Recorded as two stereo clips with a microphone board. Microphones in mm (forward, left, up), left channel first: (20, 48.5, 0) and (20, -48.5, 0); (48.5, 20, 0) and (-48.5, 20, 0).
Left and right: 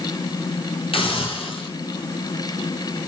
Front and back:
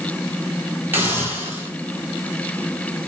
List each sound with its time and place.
0.9 s a hiss: 110° left, 2.0 m